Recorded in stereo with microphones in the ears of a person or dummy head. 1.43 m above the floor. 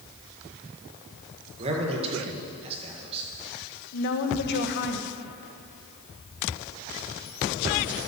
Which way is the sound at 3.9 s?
60° left (ahead or behind).